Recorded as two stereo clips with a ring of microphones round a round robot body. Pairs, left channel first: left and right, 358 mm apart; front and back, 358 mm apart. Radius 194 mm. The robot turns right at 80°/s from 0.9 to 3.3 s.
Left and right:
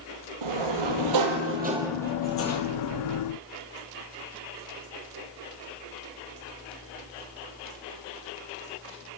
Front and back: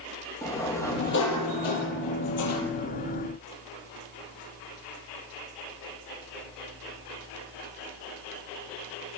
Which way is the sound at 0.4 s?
85° right.